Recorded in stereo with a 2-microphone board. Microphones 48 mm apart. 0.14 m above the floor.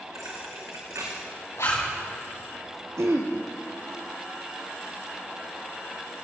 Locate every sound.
0.1 s a thud: 80° right, 3 m
1.6 s a zipper: 70° left (ahead or behind), 7 m
3.0 s throat clearing: 70° right (ahead or behind), 2.0 m